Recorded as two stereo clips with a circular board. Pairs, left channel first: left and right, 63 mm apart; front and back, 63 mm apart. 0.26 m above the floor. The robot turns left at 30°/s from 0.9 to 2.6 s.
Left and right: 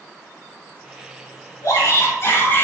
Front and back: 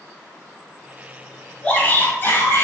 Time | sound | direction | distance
1.6 | a shout | 70° left | 4 m